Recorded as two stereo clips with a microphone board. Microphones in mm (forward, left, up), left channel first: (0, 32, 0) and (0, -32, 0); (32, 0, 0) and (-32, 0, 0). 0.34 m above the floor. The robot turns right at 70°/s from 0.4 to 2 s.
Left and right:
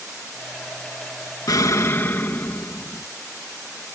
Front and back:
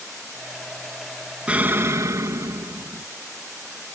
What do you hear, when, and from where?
1.5 s an explosion: 110° left; by 3.0 s 145° left